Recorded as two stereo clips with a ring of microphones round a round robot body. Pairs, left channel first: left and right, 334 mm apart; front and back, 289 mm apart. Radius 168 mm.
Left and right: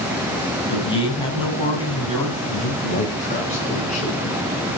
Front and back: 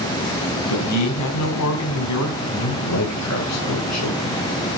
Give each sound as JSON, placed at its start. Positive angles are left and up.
{"t": 0.7, "sound": "a man speaking", "azimuth_deg": 15, "distance_m": 3.5}
{"t": 2.4, "sound": "a man speaking", "azimuth_deg": 20, "distance_m": 6.0}